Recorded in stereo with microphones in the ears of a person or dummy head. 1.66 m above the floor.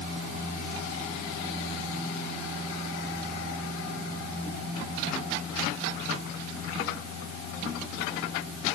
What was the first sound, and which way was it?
Only background noise.